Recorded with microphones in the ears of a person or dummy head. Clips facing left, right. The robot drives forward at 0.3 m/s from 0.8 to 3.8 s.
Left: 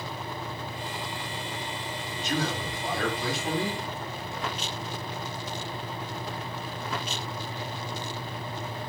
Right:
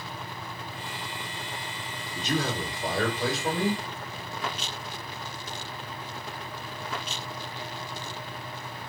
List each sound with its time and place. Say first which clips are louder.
2.1 s a man speaking: right 2 dB; 65° right (ahead or behind), 3 m; by 3.8 s 60° right (ahead or behind), 3.5 m